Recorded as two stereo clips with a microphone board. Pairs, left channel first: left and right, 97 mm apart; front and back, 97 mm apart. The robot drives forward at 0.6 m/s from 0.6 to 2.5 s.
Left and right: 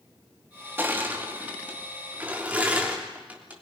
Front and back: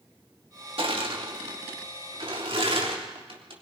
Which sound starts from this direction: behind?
Crushing, at 0.8 s.